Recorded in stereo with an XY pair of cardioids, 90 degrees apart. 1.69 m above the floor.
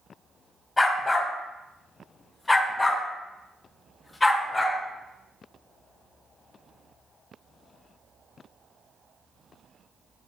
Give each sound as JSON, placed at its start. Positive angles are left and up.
{"t": 0.8, "sound": "a dog barking", "azimuth_deg": 30, "distance_m": 4.0}